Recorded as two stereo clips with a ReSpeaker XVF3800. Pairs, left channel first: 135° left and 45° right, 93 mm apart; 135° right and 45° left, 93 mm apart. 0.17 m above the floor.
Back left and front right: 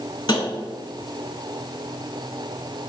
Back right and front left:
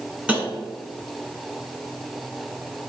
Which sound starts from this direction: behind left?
Tapping, at 0.3 s.